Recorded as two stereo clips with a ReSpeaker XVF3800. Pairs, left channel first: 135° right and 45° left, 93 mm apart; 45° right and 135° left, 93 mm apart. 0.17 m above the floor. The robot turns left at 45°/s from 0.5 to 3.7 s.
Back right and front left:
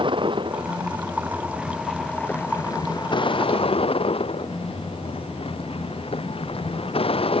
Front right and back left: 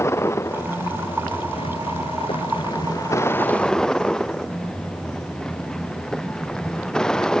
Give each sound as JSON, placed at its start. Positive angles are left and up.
{"t": 0.0, "sound": "a vehicle", "azimuth_deg": 15}